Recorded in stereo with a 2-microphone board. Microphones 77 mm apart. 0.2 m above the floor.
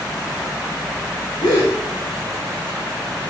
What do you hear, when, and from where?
1.4 s a gasp: 65° left (ahead or behind), 6 m